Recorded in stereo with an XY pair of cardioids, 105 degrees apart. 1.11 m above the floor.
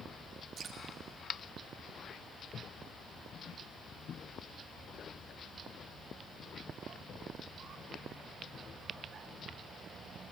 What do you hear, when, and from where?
0.6 s dripping: 55° right, 2 m